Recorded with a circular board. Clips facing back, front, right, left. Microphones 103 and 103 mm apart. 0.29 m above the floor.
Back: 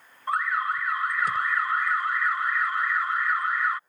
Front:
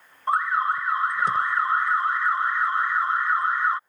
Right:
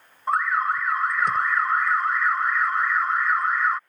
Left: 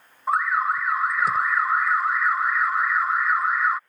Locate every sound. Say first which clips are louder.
0.3 s an alarm: front 4 dB, even; 5° left